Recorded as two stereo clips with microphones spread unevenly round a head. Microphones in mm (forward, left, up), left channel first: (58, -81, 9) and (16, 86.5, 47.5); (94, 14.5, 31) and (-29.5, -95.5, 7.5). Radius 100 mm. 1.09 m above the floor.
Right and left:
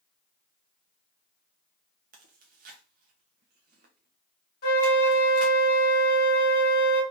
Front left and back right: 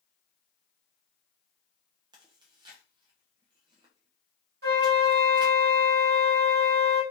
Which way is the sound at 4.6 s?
120° right.